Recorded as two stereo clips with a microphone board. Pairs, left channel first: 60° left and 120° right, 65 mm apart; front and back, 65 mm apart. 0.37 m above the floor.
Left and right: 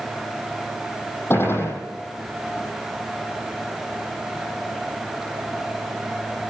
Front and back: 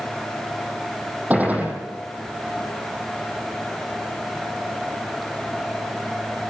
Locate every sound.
1.3 s a gunshot: 110° left, 6.5 m